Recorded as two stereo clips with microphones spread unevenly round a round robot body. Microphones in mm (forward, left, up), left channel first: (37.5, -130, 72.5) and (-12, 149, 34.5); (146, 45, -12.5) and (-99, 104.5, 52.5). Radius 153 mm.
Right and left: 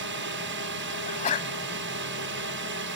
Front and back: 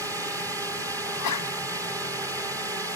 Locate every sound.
0.0 s a drone: 80° left
1.1 s a sneeze: 15° right